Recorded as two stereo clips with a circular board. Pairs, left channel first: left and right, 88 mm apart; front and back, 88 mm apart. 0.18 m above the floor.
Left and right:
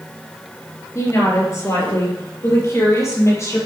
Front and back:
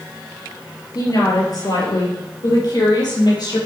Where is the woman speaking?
40° left, 4 m; by 3.6 s 35° left, 6 m.